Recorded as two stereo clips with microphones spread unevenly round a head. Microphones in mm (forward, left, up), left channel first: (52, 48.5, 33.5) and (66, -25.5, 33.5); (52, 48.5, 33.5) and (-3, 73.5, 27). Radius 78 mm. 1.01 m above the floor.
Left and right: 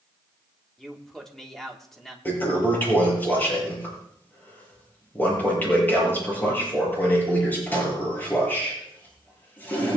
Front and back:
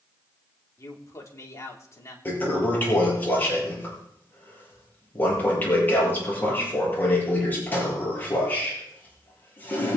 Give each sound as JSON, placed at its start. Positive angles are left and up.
{"t": 0.8, "sound": "a man speaking", "azimuth_deg": 15, "distance_m": 3.5}
{"t": 2.2, "sound": "a toilet flushing", "azimuth_deg": 35, "distance_m": 7.5}